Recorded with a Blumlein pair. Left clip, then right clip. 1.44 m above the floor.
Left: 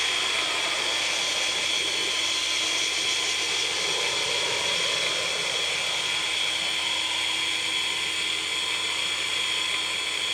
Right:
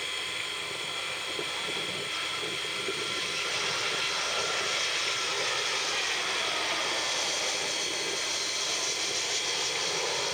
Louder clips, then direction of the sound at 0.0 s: Left 8 dB; 45° left.